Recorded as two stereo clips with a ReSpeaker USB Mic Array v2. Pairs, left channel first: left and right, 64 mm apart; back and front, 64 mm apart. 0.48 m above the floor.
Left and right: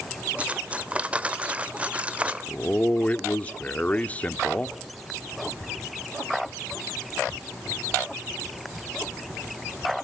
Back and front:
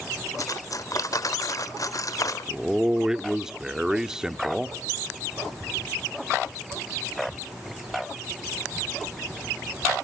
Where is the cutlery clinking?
160° right, 0.9 m.